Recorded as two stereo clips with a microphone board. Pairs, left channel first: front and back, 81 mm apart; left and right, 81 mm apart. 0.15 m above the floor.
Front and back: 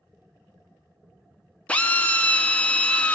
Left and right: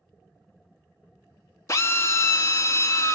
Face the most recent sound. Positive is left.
turn(degrees=65)